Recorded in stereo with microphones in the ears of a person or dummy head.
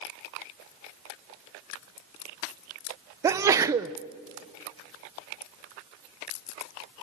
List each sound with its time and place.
3.2 s a sneeze: 10° right (ahead or behind), 0.5 m